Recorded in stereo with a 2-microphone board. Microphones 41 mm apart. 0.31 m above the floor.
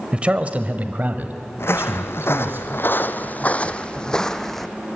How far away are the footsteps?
About 1.3 m.